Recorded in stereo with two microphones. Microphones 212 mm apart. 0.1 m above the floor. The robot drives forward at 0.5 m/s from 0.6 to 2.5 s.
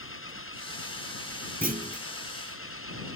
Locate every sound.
0.0 s an engine running: 70° left (ahead or behind); by 3.2 s 80° left
1.6 s a clunk: 45° right (ahead or behind); by 2.1 s 35° right (ahead or behind)